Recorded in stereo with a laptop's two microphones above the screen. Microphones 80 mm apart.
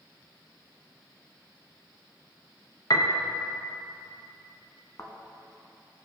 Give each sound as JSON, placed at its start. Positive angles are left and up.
{"t": 2.9, "sound": "a piano", "side_deg": 55, "distance_m": 0.7}
{"t": 5.0, "sound": "a thud", "side_deg": 45, "distance_m": 1.2}